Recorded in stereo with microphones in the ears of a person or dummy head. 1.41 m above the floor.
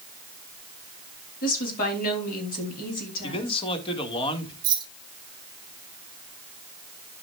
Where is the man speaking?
35° left (ahead or behind), 1.6 m.